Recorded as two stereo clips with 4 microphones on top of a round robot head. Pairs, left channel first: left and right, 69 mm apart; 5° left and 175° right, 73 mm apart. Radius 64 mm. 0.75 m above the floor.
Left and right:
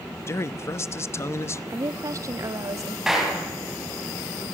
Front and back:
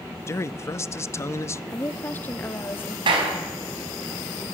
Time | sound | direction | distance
0.3 | a man speaking | 50° left | 0.8 m
1.7 | a woman speaking | 60° right | 0.9 m
3.1 | a clap | 175° right | 4.5 m